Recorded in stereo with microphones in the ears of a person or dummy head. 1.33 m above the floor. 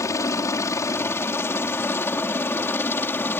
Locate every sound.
0.0 s a helicopter: 15° left (ahead or behind); by 3.4 s 10° left (ahead or behind)